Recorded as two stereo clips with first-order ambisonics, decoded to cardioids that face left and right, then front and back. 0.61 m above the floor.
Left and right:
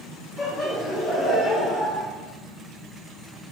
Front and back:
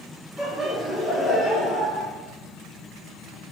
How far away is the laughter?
About 0.8 m.